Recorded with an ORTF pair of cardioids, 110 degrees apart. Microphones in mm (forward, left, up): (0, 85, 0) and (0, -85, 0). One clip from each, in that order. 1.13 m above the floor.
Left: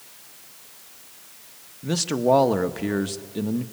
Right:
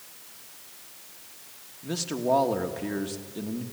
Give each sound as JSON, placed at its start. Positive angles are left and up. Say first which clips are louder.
{"t": 1.8, "sound": "a man speaking", "louder": "left 6 dB", "azimuth_deg": 35, "distance_m": 1.2}